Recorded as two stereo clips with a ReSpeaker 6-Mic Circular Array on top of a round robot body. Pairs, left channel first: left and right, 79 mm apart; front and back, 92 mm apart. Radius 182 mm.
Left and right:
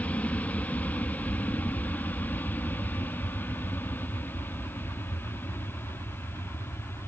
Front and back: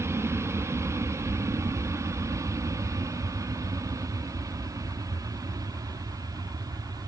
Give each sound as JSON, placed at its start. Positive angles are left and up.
{"t": 0.0, "sound": "an aircraft", "azimuth_deg": 150}